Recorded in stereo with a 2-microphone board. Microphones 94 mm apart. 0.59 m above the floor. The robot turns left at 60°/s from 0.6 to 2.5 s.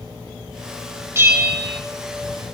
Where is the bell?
25° right, 2 m; by 1.8 s 65° right, 2 m.